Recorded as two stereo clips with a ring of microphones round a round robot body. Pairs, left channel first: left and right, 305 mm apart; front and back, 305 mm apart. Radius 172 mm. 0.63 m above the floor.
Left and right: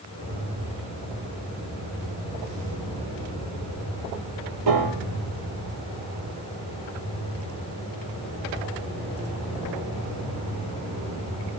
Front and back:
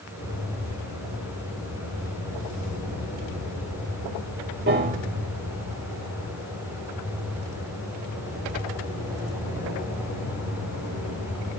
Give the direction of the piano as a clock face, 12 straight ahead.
4 o'clock.